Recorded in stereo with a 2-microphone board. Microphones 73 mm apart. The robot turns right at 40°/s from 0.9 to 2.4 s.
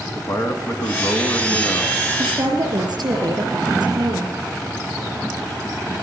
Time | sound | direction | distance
0.1 | a man speaking | 80° left | 1.3 m
2.2 | a woman speaking | 70° right (ahead or behind) | 4 m